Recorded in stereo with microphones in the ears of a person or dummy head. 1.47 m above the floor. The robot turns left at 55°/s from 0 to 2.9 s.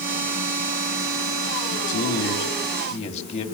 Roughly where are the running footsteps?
I don't hear running footsteps.